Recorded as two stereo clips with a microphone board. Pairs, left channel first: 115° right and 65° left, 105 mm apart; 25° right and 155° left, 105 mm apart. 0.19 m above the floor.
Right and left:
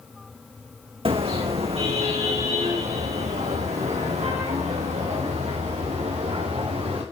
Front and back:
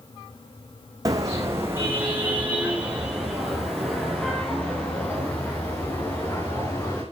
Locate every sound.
1.1 s a car horn: 100° left, 5.5 m; by 7.0 s 45° left, 9.5 m